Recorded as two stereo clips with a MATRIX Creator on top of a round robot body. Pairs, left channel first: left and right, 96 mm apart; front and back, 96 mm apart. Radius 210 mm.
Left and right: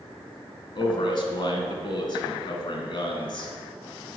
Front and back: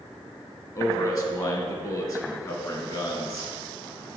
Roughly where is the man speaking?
Ahead left.